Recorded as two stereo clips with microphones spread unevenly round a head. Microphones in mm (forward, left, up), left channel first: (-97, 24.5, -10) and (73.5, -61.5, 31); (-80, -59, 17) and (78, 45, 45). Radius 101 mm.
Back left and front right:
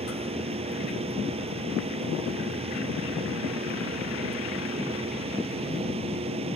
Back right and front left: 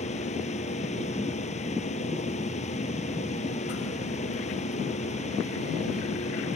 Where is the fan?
90° right.